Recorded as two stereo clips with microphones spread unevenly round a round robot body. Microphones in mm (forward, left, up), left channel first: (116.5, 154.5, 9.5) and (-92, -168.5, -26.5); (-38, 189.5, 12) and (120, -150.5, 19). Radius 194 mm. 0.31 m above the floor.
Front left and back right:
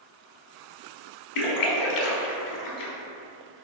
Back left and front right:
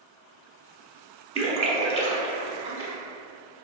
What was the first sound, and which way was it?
A splash, 10° left.